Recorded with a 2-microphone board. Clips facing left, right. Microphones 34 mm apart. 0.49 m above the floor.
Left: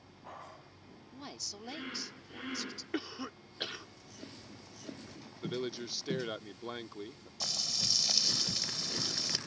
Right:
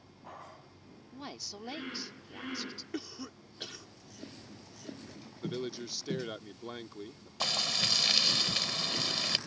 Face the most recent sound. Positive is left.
turn(degrees=-55)  # may be behind; listen again after turning